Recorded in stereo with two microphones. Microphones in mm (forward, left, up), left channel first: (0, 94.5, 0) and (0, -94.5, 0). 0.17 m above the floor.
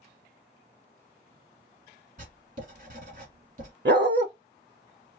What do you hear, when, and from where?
2.2 s writing: 45° right (ahead or behind), 1.3 m
3.9 s a dog barking: 65° right (ahead or behind), 0.6 m